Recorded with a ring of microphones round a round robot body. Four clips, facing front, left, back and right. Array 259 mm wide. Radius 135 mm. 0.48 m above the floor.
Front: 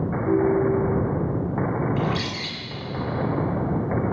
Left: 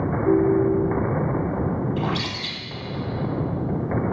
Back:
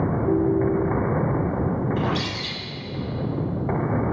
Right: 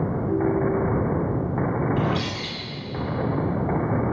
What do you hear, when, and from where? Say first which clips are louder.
0.2 s a ringtone: left 5 dB, front 2 dB; 90° left, 7 m
2.0 s a bird: right 1 dB, even; 60° left, 4.5 m